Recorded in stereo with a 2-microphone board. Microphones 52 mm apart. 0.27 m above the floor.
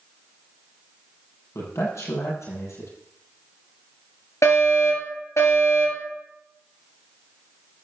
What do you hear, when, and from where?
1.6 s a man speaking: 65° left (ahead or behind), 8 m
4.4 s a fire alarm: 70° left (ahead or behind), 8 m